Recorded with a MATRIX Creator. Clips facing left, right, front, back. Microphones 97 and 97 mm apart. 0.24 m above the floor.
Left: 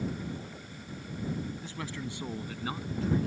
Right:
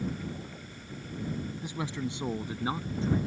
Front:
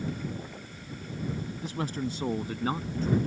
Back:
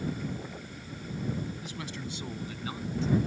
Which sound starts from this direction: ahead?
A man speaking, at 1.6 s.